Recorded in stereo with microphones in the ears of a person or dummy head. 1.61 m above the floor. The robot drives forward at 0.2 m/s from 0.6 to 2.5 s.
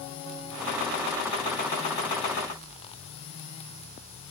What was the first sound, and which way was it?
Only background noise.